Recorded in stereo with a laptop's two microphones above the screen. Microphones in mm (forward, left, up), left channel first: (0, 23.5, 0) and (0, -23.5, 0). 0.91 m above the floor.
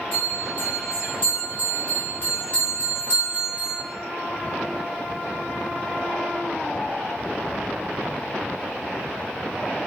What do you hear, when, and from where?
0.1 s a bell: 50° left (ahead or behind), 1.2 m